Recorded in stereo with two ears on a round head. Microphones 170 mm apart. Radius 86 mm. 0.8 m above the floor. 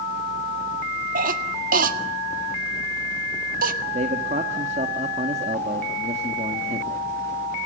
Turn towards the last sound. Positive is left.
turn(degrees=-35)  # may be behind; listen again after turning